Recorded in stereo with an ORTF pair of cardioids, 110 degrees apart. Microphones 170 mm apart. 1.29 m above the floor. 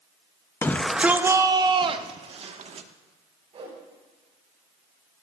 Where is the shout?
15° left, 0.5 m; by 2.9 s 40° right, 1.5 m.